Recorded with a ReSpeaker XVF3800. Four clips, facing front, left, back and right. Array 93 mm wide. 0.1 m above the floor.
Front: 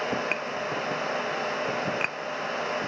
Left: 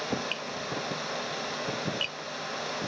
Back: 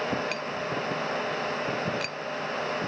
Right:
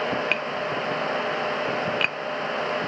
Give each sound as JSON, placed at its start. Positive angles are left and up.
{"t": 0.3, "sound": "tapping", "azimuth_deg": -60}